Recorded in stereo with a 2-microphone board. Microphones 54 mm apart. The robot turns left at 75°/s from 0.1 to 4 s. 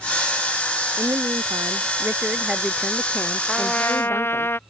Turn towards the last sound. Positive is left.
turn(degrees=135)